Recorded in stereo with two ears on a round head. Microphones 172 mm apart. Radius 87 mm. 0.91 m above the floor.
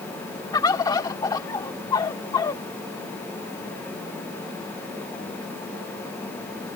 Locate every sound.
0.5 s a bird: 20° left (ahead or behind)